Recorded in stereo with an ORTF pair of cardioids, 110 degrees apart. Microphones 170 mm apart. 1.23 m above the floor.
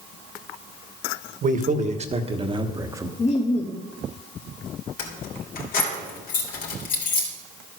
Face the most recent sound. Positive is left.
turn(degrees=65)